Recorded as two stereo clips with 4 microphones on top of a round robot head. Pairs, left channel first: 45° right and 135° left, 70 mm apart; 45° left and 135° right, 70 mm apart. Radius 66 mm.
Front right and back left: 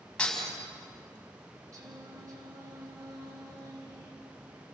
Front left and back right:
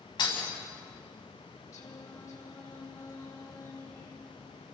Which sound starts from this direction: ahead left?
Breaking glass, at 0.2 s.